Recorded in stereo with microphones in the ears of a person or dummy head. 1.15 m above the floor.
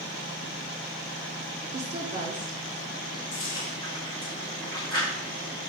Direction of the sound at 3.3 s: 25° left (ahead or behind).